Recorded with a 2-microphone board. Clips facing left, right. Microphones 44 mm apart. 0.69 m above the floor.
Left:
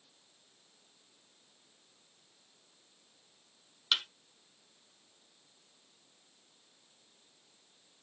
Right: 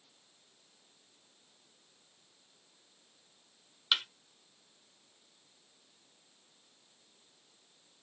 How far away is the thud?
About 0.9 m.